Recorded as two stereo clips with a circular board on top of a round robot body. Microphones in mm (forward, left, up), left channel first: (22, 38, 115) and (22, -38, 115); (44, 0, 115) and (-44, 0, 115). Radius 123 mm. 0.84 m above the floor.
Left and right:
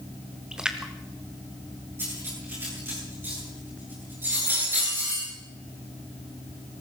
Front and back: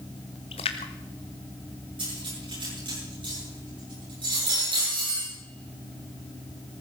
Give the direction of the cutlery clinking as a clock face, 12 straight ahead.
5 o'clock.